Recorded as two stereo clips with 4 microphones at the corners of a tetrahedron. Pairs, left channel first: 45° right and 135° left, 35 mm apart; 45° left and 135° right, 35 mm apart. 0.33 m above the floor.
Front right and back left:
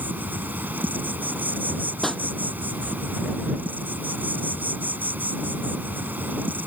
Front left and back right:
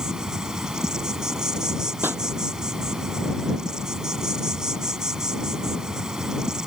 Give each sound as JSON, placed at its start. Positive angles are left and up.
{"t": 0.0, "sound": "an insect", "azimuth_deg": 155}
{"t": 2.0, "sound": "a pop", "azimuth_deg": -130}